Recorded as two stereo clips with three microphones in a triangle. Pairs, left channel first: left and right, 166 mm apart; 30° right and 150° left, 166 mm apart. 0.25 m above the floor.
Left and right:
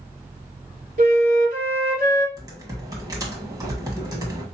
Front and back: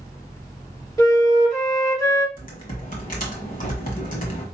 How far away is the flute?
About 0.9 m.